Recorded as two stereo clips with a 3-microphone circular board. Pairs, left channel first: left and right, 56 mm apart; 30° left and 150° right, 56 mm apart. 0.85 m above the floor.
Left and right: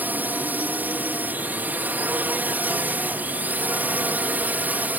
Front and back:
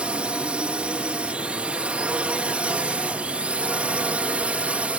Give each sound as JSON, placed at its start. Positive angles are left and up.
{"t": 0.0, "sound": "a drone", "azimuth_deg": -100}